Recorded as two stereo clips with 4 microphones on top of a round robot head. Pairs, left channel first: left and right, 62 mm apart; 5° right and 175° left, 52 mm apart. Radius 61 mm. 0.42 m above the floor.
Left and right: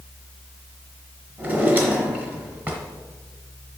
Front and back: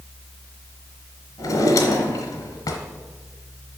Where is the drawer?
25° right, 1.4 m.